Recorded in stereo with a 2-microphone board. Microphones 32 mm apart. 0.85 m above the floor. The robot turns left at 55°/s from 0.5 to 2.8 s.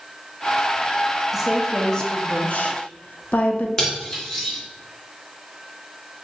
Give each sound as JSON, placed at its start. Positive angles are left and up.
{"t": 1.3, "sound": "a woman speaking", "azimuth_deg": -165, "distance_m": 0.6}
{"t": 3.8, "sound": "cutlery clinking", "side_deg": 15, "distance_m": 1.0}